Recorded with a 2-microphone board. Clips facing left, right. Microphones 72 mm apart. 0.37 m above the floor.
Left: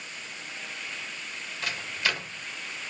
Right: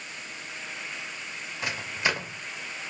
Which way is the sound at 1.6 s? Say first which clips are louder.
Right 2 dB; 20° right (ahead or behind).